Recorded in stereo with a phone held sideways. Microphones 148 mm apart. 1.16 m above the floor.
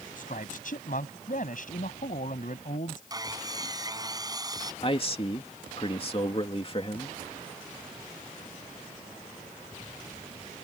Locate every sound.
0.2 s a man speaking: 65° left (ahead or behind)
3.1 s sawing: 25° right (ahead or behind)
4.8 s a man speaking: 40° left (ahead or behind)